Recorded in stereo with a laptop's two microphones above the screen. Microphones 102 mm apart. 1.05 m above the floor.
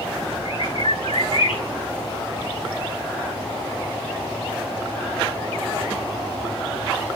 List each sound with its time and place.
0.5 s a bird: 75° left (ahead or behind), 6 m